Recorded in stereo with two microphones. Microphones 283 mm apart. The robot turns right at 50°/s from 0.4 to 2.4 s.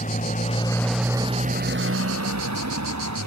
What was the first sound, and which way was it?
A motorcycle, 155° left.